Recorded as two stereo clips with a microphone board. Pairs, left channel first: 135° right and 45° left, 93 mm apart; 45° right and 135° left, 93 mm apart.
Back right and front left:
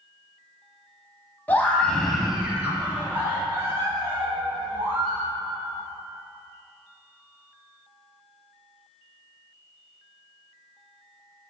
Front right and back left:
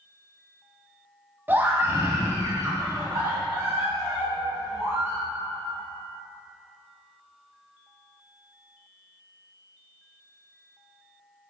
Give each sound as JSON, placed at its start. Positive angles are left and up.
{"t": 1.5, "sound": "a scream", "azimuth_deg": 175, "distance_m": 1.1}